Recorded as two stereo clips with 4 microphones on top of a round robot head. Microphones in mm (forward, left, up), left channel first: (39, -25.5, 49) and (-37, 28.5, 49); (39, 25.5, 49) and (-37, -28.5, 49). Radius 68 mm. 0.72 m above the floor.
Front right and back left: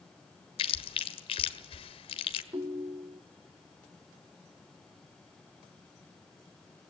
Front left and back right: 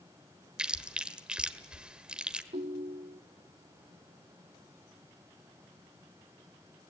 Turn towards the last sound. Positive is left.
turn(degrees=-160)